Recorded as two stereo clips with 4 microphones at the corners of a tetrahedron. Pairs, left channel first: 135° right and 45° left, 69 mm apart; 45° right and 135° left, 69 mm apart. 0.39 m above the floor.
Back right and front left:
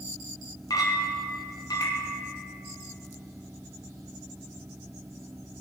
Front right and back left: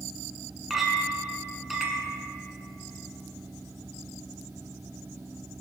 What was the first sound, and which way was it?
A clink, 140° right.